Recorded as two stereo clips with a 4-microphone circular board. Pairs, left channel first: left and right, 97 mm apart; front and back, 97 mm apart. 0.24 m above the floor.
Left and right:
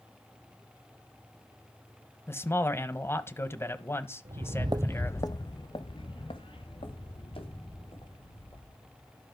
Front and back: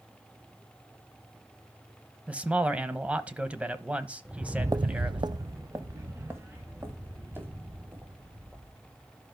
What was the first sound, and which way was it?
A man speaking, 120° left.